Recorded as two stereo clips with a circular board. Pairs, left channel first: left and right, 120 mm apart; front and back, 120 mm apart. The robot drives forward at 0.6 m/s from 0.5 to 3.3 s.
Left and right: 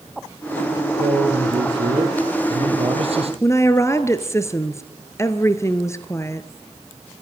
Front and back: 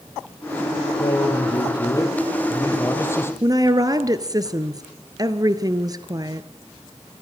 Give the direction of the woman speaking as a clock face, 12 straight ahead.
7 o'clock.